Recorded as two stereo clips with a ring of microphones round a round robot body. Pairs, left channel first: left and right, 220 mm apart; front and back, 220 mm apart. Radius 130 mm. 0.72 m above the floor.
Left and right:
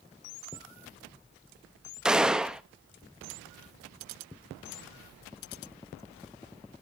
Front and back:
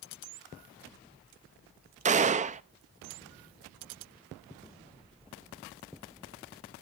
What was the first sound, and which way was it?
A gunshot, 175° right.